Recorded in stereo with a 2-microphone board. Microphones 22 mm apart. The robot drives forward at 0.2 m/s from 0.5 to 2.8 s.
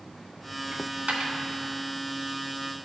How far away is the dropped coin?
About 1.5 m.